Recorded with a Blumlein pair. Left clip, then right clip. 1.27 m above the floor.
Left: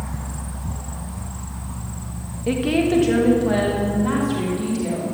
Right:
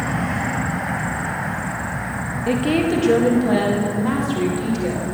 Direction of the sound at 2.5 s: Straight ahead.